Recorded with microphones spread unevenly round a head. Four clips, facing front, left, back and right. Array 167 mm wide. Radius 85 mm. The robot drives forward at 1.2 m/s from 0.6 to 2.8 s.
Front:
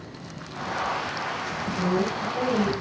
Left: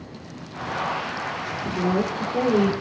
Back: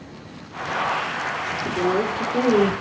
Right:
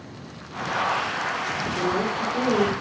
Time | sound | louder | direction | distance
1.6 | a woman speaking | left 2 dB, back 4 dB | 155° left | 4 m